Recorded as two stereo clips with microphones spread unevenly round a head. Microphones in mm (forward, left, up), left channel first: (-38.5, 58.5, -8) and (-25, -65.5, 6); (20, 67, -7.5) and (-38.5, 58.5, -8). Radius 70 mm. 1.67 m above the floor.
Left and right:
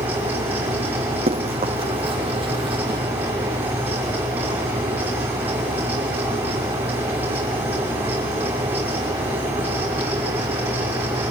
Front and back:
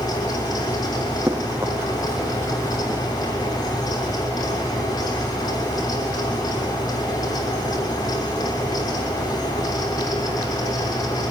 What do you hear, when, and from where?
0.0 s a fan: 5° right, 6 m
1.3 s running footsteps: 115° right, 4 m; by 3.0 s 120° right, 2.5 m